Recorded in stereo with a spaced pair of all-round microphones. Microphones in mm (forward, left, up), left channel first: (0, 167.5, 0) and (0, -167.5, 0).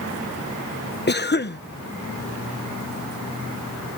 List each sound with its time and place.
1.1 s a cough: 30° left (ahead or behind)